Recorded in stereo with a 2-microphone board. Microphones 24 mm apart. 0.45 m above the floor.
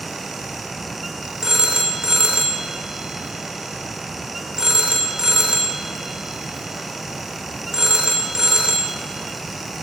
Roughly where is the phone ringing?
Right.